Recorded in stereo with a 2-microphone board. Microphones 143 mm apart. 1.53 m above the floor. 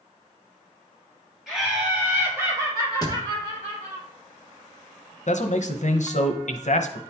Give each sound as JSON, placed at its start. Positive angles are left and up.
{"t": 1.5, "sound": "laughter", "side_deg": -5, "distance_m": 3.5}
{"t": 3.0, "sound": "a thud", "side_deg": 30, "distance_m": 0.9}
{"t": 5.3, "sound": "a man speaking", "side_deg": 60, "distance_m": 0.7}